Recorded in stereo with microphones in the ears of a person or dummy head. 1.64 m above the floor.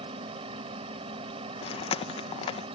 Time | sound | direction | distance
0.0 | a machine running | 35° right (ahead or behind) | ?
1.6 | chewing | 30° left (ahead or behind) | ?